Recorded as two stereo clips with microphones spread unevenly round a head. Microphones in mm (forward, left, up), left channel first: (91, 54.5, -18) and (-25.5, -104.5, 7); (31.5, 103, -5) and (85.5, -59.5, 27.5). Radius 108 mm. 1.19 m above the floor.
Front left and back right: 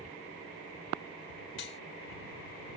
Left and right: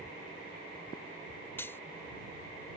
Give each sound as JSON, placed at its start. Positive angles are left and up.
{"t": 1.6, "sound": "cutlery clinking", "azimuth_deg": 30}